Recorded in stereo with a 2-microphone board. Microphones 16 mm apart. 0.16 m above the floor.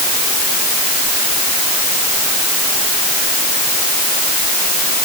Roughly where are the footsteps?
I don't hear footsteps.